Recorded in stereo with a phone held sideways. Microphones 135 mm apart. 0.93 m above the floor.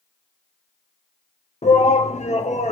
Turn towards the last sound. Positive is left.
turn(degrees=55)  # may be behind; listen again after turning